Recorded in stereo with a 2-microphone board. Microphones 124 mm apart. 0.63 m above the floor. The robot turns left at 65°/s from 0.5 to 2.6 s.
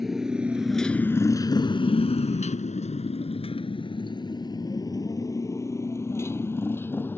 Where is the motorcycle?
Centre (ahead or behind); by 7.2 s 15° left (ahead or behind).